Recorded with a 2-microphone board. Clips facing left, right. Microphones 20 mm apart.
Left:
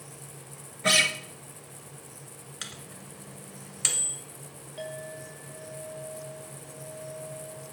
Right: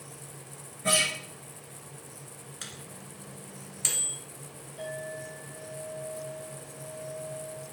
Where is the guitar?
45° left (ahead or behind), 1.1 m.